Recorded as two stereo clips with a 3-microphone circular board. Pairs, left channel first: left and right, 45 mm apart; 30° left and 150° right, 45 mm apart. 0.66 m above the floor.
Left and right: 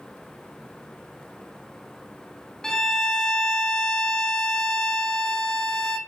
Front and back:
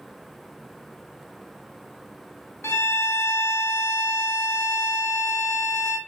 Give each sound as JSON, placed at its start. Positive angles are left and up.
{"t": 2.6, "sound": "a violin", "azimuth_deg": 10, "distance_m": 0.5}